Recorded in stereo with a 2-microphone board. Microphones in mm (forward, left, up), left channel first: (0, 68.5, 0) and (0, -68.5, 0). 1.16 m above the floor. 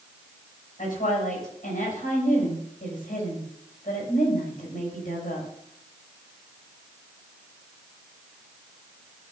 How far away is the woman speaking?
About 6 m.